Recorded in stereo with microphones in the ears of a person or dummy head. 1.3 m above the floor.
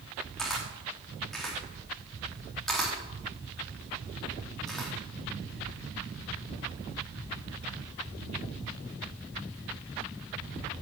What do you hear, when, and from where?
0.4 s a camera shutter: 5° left (ahead or behind), 3 m